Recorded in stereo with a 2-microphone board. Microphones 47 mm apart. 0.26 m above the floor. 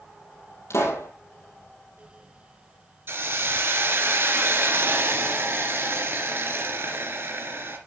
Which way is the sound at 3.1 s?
50° right (ahead or behind).